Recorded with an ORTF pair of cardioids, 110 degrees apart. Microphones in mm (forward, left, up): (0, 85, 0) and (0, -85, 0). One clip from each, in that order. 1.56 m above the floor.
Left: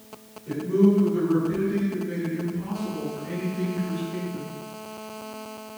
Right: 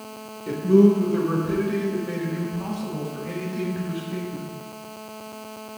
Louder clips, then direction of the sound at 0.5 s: Right 5 dB; 60° right.